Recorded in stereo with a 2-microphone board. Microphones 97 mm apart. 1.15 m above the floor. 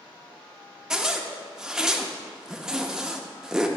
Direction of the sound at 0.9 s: 5° right (ahead or behind).